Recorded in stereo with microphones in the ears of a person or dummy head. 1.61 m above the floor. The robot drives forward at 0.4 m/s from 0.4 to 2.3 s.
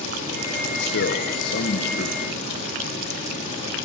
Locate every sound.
0.7 s a man speaking: 65° left (ahead or behind), 1.1 m; by 2.7 s 45° left (ahead or behind), 1.5 m